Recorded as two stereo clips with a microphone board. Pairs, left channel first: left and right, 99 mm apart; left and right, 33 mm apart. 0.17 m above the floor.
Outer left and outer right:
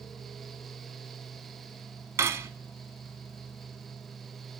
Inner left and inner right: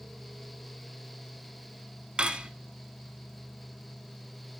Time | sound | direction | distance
2.2 | cutlery clinking | 30° right (ahead or behind) | 0.8 m